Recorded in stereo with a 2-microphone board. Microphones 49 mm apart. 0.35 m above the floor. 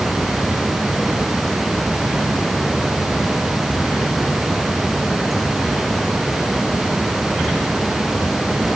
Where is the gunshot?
No gunshot in this recording.